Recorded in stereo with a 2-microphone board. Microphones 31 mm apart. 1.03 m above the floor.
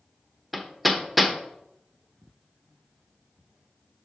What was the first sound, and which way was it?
Hammering, centre (ahead or behind).